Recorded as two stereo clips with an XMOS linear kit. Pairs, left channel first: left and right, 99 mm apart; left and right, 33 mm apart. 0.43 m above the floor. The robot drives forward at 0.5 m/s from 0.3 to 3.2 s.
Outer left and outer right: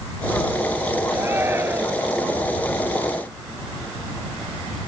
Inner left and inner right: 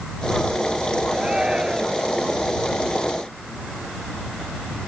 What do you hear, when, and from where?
1.1 s a shout: 20° right (ahead or behind)